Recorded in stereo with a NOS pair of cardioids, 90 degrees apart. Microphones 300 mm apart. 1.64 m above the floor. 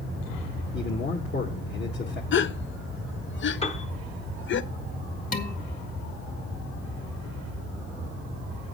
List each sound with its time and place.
0.7 s a man speaking: 40° left, 1.8 m
2.3 s a gasp: 45° left, 0.7 m
3.6 s a piano: 20° left, 1.3 m
5.3 s dishes clattering: 30° left, 2.0 m